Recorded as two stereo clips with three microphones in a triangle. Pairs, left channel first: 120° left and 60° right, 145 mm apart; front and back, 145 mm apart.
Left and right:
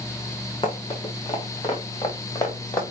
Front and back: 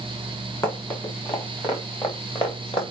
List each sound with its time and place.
0.6 s running footsteps: 65° left, 4 m; by 2.8 s 50° left, 4.5 m